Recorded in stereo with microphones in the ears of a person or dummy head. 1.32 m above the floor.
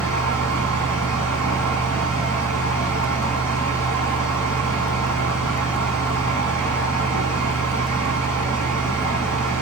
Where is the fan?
15° left (ahead or behind), 5 m.